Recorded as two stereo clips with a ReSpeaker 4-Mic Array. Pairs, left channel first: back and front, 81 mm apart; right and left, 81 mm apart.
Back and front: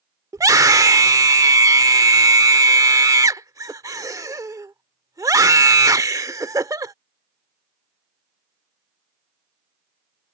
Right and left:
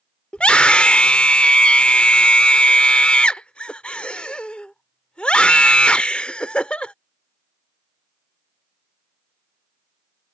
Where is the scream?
15° right.